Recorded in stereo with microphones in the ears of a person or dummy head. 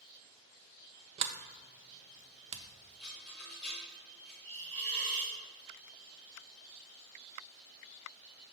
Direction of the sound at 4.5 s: 40° right (ahead or behind).